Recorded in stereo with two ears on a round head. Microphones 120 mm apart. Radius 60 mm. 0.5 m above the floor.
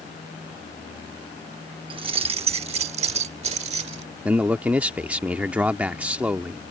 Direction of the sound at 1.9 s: 40° right (ahead or behind).